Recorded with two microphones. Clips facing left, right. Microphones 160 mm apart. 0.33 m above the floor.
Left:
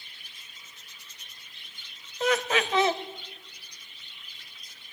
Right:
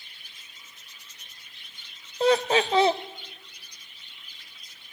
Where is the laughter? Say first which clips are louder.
Right 5 dB; 30° right (ahead or behind), 1.0 m.